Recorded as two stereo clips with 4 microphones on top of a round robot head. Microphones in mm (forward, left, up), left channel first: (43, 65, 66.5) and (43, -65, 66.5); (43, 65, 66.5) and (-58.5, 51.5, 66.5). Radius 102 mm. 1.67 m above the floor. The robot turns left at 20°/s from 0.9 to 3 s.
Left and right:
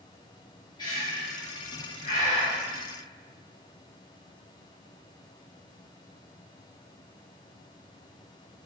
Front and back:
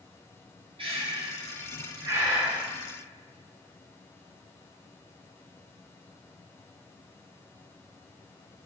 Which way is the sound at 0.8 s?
155° left.